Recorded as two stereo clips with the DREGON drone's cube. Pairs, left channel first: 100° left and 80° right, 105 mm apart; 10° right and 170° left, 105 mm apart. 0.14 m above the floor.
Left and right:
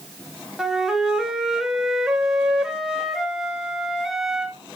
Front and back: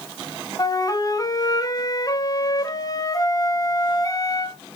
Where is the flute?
5° left, 1.0 m.